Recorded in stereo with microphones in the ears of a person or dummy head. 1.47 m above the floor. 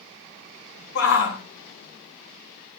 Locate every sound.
0.9 s a shout: 60° left (ahead or behind), 3.5 m